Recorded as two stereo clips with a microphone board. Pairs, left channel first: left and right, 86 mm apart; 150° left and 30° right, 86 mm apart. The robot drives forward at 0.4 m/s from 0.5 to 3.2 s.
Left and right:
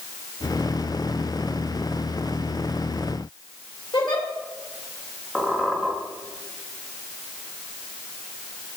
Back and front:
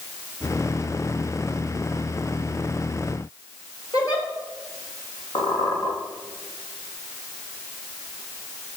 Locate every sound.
3.9 s a giggle: 110° left, 3 m
5.3 s a squeak: straight behind, 4 m